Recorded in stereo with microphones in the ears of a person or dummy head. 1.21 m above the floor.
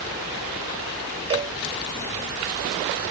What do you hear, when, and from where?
1.3 s a cowbell: 30° right (ahead or behind)